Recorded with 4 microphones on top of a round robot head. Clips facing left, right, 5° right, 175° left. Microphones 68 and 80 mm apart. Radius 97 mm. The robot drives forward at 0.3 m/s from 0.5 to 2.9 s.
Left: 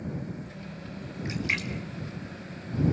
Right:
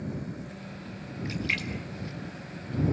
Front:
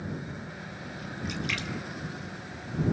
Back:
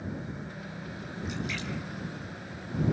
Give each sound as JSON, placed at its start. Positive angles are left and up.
{"t": 1.2, "sound": "a splash", "azimuth_deg": 20, "distance_m": 2.5}